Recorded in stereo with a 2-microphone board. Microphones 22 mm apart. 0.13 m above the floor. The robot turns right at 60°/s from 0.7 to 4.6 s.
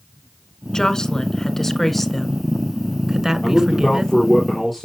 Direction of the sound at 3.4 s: 95° left.